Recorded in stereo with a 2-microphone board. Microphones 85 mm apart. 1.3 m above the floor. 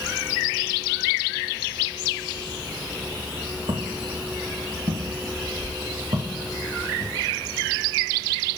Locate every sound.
3.7 s footsteps: 60° right (ahead or behind), 4.5 m; by 7.1 s 70° right (ahead or behind), 4 m